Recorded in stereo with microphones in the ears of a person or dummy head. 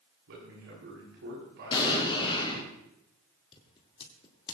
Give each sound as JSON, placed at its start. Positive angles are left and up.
{"t": 0.3, "sound": "a man speaking", "side_deg": -65, "distance_m": 9.0}
{"t": 1.7, "sound": "an explosion", "side_deg": 25, "distance_m": 4.0}
{"t": 3.5, "sound": "scissors", "side_deg": 25, "distance_m": 2.0}